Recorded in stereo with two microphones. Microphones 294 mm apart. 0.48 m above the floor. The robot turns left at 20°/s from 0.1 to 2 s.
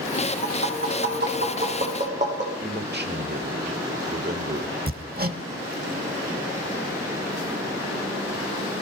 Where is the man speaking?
40° right (ahead or behind), 1.3 m.